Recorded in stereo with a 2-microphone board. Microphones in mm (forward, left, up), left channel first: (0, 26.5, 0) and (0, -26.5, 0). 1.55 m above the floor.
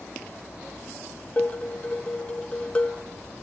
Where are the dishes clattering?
25° left (ahead or behind), 1.8 m.